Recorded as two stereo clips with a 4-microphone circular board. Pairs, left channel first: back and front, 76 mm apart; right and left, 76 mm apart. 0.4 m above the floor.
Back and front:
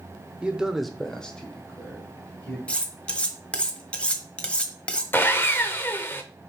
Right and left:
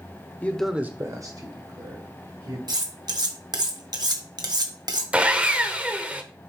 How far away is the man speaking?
About 0.9 m.